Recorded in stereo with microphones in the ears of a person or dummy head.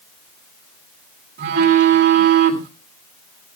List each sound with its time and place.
1.4 s a phone buzzing: 45° right (ahead or behind), 1.8 m